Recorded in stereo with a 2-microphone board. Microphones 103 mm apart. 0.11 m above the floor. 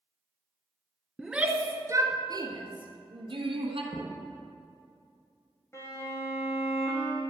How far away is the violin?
About 3 m.